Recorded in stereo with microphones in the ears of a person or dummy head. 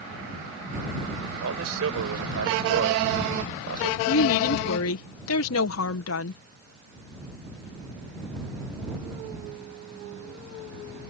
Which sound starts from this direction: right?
A man speaking, at 1.4 s.